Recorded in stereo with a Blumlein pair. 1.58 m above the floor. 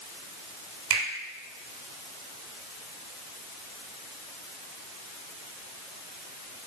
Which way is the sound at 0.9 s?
55° right.